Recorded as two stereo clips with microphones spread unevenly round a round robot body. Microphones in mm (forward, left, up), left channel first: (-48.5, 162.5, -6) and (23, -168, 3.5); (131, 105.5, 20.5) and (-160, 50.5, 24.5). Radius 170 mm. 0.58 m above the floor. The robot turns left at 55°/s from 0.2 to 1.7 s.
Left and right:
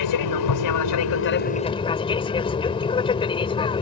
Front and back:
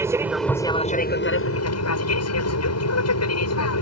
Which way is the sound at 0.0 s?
110° left.